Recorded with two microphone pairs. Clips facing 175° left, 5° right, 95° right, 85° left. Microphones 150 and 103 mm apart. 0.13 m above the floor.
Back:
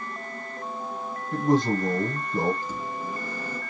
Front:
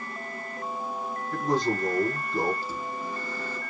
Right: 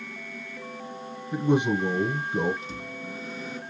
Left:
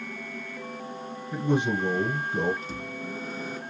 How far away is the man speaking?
About 1.2 m.